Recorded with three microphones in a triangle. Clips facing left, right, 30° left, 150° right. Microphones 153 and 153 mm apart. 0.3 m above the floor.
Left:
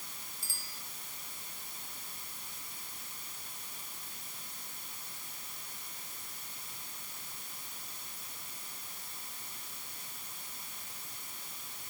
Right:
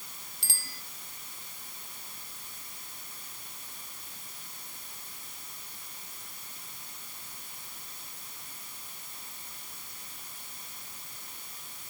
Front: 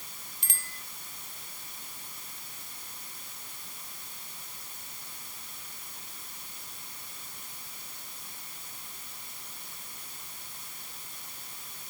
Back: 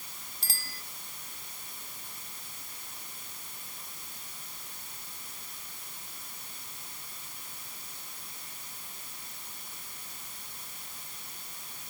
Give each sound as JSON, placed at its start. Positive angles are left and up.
{"t": 0.4, "sound": "a bicycle bell", "azimuth_deg": -95}